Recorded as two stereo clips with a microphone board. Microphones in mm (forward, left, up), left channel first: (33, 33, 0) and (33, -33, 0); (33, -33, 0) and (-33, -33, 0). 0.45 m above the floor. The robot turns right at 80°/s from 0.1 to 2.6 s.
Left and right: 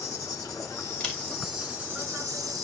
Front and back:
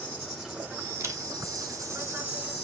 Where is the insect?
65° left, 5 m; by 2.6 s 95° right, 5 m.